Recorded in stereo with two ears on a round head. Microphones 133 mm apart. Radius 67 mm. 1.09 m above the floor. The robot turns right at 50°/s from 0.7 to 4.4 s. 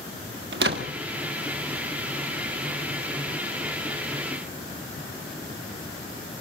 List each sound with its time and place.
0.5 s a door slam: 85° right, 1.5 m